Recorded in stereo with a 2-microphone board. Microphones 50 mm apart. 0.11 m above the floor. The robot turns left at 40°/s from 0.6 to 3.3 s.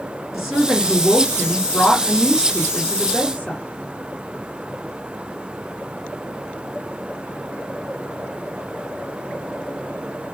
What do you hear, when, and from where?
0.3 s a woman speaking: 5° right (ahead or behind), 1.5 m; by 3.6 s 25° left (ahead or behind), 1.5 m